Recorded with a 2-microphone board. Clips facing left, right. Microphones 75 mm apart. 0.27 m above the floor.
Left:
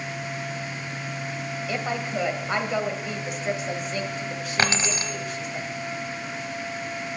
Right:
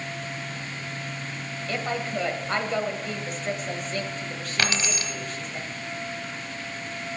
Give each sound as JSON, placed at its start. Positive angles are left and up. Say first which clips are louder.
{"t": 1.7, "sound": "a woman speaking", "louder": "even", "side_deg": 10, "distance_m": 1.1}
{"t": 4.6, "sound": "keys jangling", "louder": "left 3 dB", "side_deg": 30, "distance_m": 0.9}